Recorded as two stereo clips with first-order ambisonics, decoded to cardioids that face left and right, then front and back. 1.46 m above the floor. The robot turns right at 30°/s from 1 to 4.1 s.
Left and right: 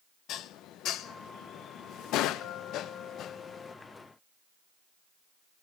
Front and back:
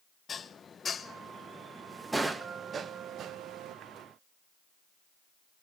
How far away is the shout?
No shout in this recording.